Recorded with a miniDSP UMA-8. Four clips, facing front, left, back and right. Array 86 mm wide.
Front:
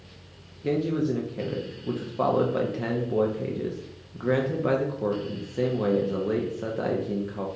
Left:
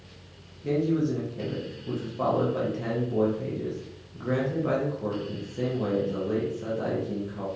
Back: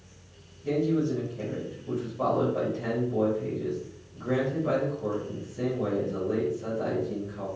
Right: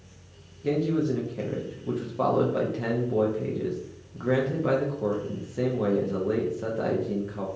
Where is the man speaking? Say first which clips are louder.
Even, front 1 dB; 25° right, 0.5 m.